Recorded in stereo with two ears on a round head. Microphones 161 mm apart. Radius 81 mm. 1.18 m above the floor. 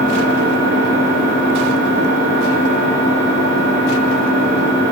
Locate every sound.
0.0 s an engine running: 70° right (ahead or behind), 5 m